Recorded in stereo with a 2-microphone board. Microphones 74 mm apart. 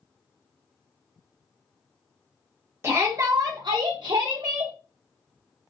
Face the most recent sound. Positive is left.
turn(degrees=-60)  # may be behind; listen again after turning